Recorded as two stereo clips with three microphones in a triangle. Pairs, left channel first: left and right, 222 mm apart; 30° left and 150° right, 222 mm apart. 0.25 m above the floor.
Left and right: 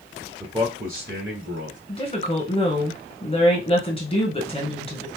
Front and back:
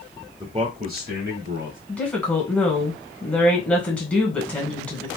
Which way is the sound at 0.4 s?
130° right.